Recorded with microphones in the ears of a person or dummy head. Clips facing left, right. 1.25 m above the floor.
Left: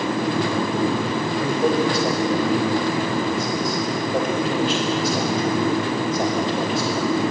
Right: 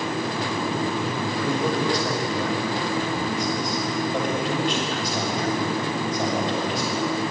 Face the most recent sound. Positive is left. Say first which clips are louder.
# left 4 dB
turn(degrees=25)  # may be behind; listen again after turning